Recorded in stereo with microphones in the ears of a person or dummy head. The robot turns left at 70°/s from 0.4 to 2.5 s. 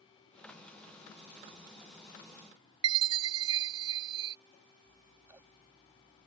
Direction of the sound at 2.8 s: 25° right (ahead or behind).